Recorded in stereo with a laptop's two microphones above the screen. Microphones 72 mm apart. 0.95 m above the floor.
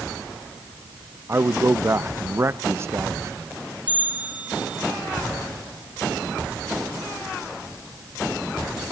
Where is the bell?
20° right (ahead or behind), 1.9 m.